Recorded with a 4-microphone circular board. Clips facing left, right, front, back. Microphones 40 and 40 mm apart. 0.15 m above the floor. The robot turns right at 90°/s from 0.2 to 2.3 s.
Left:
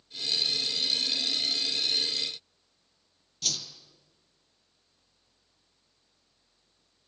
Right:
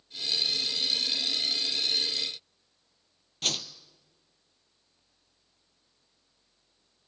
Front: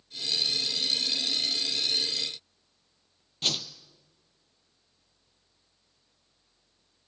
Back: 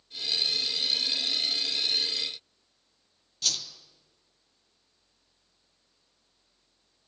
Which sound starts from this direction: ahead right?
A whoosh, at 3.4 s.